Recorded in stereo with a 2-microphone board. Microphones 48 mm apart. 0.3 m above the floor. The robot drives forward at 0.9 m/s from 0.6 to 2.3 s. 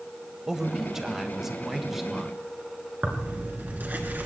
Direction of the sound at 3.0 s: 40° right (ahead or behind).